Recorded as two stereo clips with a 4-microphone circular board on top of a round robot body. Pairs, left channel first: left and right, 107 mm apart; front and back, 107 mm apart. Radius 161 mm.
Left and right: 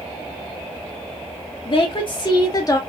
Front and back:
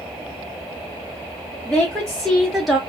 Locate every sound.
1.6 s a woman speaking: 75° left, 1.3 m; by 2.8 s 95° left, 1.0 m